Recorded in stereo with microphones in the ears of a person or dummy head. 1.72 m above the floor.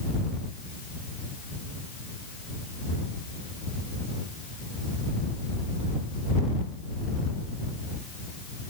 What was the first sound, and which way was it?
Only background noise.